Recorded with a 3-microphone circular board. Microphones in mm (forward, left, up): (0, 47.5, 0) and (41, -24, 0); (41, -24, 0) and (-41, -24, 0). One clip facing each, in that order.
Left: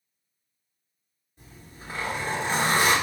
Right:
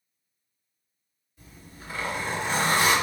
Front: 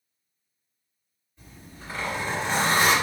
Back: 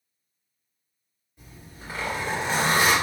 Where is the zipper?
115° left, 1.6 m.